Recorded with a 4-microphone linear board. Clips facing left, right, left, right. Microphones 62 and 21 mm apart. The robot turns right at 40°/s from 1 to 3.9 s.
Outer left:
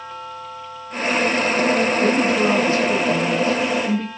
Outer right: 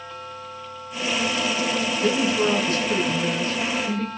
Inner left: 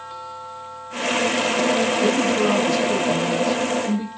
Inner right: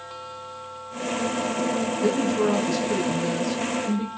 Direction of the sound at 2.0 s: 110° left.